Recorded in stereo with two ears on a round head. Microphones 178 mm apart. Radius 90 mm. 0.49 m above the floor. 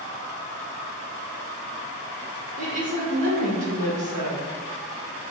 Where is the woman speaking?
40° right (ahead or behind), 1.0 m.